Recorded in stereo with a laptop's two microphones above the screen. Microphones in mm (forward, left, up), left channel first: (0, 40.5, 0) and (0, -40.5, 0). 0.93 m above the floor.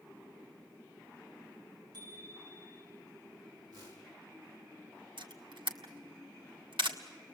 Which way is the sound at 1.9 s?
50° right (ahead or behind).